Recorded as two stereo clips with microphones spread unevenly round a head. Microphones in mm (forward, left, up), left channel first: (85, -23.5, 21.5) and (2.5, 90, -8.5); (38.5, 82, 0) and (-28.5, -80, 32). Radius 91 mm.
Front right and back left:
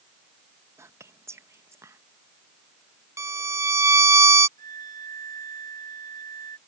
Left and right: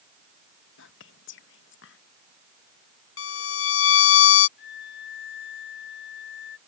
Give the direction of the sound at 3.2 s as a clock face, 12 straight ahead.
10 o'clock.